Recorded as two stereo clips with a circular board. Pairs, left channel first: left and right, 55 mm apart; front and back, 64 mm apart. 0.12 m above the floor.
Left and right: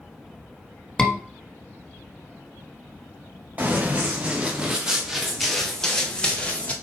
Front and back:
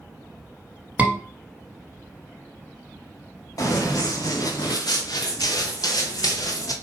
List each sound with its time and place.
1.0 s a scream: 155° left, 1.1 m
3.6 s running footsteps: 30° right, 2.5 m; by 6.7 s 25° left, 2 m